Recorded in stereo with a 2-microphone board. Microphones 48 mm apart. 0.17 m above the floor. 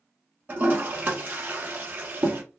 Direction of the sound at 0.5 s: 35° right (ahead or behind).